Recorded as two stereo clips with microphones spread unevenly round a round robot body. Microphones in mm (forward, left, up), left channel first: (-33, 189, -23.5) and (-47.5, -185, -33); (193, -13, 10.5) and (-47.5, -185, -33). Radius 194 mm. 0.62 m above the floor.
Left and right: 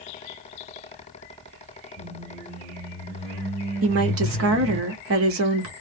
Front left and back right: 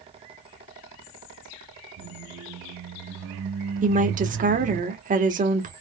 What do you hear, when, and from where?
2.0 s a squeak: 165° left, 1.7 m
3.8 s a woman speaking: 115° right, 1.0 m